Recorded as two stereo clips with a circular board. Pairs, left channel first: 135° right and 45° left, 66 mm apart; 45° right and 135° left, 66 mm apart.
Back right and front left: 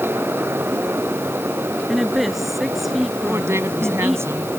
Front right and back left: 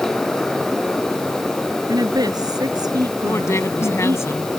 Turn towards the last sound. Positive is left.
turn(degrees=0)